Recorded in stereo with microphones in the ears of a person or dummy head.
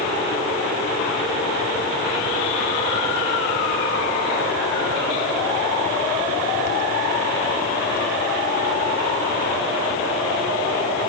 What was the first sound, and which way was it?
Only background noise.